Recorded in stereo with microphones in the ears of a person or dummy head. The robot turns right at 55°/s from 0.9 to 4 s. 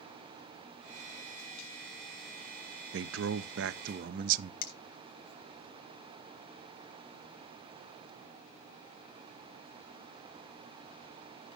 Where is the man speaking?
110° right, 0.5 m; by 4.5 s 50° right, 0.5 m.